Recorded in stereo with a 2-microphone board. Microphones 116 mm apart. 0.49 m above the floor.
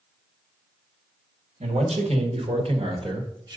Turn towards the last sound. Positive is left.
turn(degrees=-35)  # may be behind; listen again after turning